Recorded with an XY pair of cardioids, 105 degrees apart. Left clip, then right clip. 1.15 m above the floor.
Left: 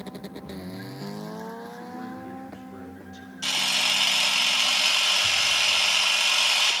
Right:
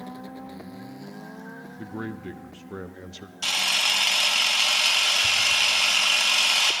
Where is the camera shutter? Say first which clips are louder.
Right 1 dB; 30° right, 1.7 m.